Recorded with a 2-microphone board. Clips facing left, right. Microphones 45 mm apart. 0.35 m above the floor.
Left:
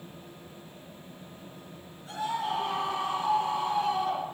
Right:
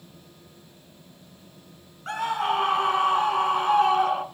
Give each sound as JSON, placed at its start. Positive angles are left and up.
{"t": 2.1, "sound": "a scream", "side_deg": -70, "distance_m": 4.0}